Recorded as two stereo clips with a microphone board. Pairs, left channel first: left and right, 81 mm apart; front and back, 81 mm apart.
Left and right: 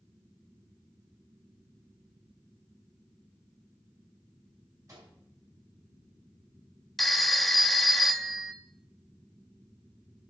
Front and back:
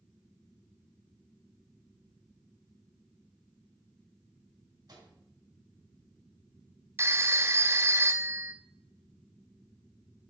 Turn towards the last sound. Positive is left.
turn(degrees=180)